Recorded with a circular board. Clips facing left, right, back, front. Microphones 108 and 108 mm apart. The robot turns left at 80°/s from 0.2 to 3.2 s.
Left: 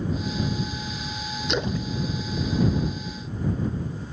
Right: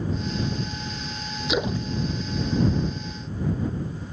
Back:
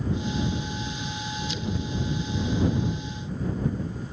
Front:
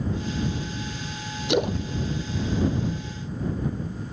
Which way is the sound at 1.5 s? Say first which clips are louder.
Right 2 dB, front 10 dB; straight ahead.